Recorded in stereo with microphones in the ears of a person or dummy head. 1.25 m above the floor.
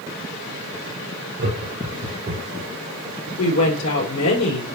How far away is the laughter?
About 3.5 m.